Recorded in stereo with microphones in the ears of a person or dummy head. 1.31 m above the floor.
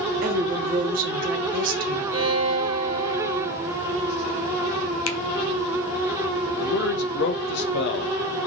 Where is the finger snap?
75° left (ahead or behind), 0.5 m.